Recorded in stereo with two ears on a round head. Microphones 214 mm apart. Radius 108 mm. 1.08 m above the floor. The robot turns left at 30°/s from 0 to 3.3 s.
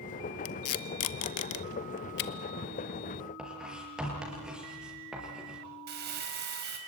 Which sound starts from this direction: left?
Tape being pulled, at 0.5 s.